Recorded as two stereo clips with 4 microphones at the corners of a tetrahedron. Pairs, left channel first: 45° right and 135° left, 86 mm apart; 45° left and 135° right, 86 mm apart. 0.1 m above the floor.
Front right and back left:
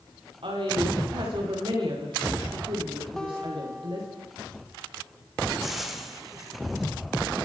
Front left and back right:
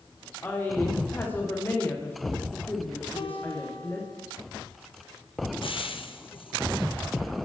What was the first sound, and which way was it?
A woman speaking, 115° left.